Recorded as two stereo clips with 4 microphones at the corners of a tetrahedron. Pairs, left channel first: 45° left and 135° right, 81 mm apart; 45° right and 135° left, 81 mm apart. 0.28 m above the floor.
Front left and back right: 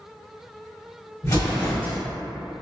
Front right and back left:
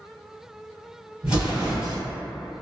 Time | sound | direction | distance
1.2 | an explosion | 65° left | 1.5 m